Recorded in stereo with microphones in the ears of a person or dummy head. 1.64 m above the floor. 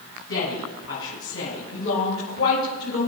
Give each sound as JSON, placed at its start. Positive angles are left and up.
{"t": 0.3, "sound": "a woman speaking", "side_deg": 70, "distance_m": 7.0}